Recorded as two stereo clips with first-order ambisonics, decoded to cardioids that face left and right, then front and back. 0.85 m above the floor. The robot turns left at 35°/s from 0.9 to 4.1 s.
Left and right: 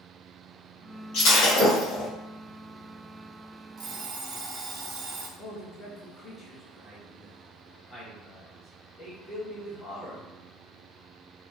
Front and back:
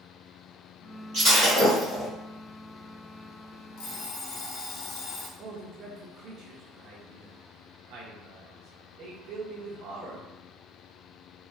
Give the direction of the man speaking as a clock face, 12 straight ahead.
7 o'clock.